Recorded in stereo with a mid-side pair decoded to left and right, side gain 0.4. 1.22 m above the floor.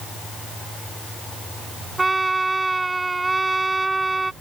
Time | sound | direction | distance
2.0 | a trumpet | 25° right | ?